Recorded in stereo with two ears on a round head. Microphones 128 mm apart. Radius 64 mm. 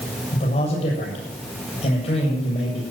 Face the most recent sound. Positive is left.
turn(degrees=45)  # may be behind; listen again after turning